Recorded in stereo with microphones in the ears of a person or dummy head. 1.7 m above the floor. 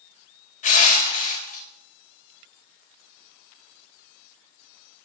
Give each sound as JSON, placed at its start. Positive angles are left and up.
{"t": 0.6, "sound": "crushing", "side_deg": 45, "distance_m": 3.5}